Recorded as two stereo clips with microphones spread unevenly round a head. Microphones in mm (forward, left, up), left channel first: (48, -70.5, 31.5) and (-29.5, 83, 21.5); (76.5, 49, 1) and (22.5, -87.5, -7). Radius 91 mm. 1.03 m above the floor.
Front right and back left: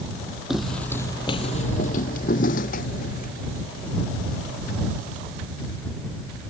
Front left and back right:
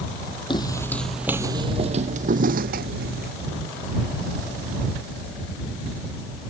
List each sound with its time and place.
0.5 s footsteps: 25° left; by 3.3 s 105° right